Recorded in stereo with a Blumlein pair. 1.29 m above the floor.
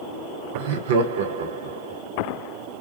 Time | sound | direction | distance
0.5 | laughter | 55° right | 0.5 m